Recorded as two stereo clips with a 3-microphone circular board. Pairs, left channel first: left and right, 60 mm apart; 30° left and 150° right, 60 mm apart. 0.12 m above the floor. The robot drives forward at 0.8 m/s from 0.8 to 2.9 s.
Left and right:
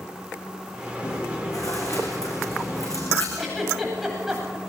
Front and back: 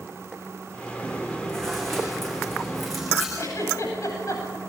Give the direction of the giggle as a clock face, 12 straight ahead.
12 o'clock.